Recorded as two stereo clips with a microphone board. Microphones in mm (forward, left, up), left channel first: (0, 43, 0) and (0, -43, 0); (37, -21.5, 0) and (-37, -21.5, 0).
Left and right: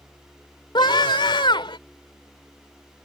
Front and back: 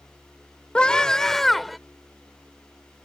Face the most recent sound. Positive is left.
turn(degrees=90)